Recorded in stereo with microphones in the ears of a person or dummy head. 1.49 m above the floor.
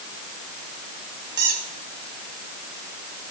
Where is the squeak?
50° right (ahead or behind), 1.3 m.